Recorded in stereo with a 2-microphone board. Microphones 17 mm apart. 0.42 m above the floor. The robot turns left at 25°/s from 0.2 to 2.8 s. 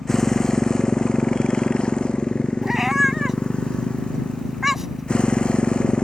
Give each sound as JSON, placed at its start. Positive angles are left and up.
{"t": 0.0, "sound": "a motorcycle", "azimuth_deg": 155}
{"t": 2.6, "sound": "a cat meowing", "side_deg": -10}